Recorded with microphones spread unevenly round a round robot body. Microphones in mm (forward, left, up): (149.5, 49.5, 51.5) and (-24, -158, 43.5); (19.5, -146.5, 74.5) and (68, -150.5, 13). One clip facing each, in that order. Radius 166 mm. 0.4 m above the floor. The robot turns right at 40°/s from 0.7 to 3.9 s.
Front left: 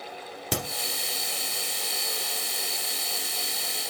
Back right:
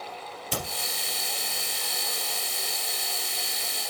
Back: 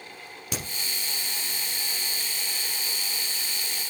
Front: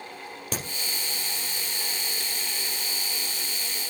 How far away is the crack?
About 2 m.